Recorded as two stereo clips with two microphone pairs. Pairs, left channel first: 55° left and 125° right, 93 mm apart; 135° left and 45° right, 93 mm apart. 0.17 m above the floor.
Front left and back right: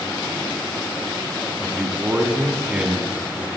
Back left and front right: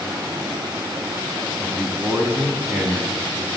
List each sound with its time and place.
1.6 s a man speaking: 75° right, 1.0 m